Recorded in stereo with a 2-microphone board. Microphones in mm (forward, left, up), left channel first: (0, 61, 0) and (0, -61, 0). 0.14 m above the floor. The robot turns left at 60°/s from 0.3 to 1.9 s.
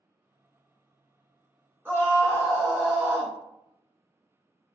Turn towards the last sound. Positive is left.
turn(degrees=-20)  # may be behind; listen again after turning